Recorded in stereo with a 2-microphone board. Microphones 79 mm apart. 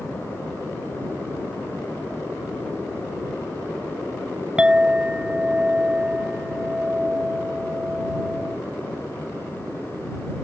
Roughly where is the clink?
Centre.